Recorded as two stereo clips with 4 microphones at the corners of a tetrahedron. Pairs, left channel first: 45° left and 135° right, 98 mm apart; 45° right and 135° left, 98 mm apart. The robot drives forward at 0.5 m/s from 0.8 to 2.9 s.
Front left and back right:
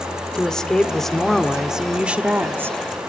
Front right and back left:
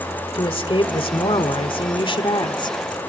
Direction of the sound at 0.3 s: 40° right.